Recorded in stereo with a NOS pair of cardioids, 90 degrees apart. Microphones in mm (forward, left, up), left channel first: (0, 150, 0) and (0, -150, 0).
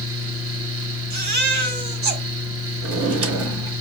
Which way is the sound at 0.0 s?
50° right.